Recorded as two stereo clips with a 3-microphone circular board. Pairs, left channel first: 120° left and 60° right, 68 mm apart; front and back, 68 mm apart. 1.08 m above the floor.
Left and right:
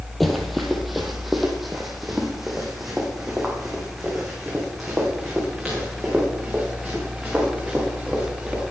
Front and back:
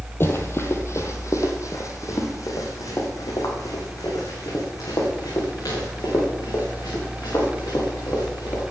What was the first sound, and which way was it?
Running footsteps, 30° left.